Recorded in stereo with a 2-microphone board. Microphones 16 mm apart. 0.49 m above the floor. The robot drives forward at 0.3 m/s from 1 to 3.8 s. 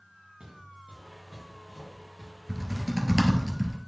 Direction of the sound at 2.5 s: 40° right (ahead or behind).